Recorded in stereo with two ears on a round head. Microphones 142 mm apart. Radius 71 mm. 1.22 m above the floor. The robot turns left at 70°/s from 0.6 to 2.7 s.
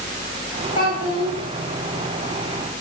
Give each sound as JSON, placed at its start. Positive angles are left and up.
{"t": 0.8, "sound": "a child speaking", "azimuth_deg": 115, "distance_m": 1.7}